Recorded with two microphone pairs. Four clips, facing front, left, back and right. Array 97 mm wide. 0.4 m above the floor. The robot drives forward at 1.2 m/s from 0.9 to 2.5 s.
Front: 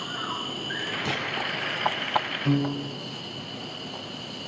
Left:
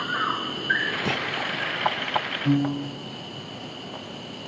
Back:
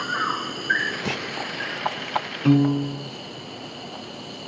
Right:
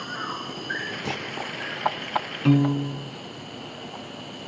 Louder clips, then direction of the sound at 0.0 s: Left 5 dB, back 7 dB; 145° left.